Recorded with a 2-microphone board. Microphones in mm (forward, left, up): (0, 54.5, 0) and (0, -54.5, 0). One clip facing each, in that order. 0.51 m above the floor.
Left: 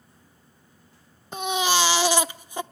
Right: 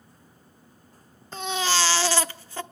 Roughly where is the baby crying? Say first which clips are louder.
Left 3 dB; centre.